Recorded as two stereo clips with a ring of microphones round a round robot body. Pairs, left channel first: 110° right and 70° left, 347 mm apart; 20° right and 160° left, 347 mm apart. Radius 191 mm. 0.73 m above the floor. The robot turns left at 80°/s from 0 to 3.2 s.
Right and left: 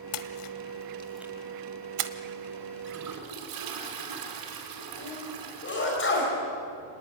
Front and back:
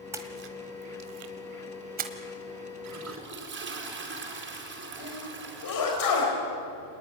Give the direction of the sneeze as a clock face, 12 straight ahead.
2 o'clock.